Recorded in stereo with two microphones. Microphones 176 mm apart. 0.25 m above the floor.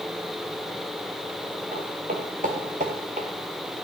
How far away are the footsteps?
About 3 m.